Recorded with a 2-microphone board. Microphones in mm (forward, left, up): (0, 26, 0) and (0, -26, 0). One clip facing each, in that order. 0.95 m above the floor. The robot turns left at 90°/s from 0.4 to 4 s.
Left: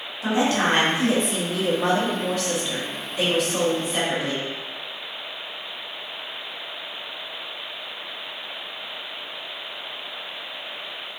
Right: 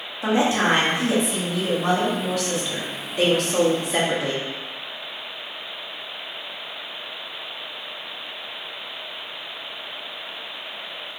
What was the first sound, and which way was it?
A woman speaking, 150° right.